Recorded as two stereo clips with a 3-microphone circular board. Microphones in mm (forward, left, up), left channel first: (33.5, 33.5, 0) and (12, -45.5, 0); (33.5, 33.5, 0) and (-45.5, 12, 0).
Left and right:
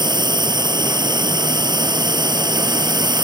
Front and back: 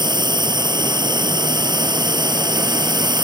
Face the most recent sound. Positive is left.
turn(degrees=-135)